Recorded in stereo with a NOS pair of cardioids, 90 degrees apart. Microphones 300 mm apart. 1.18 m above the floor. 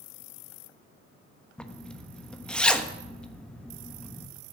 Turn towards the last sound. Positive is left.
turn(degrees=5)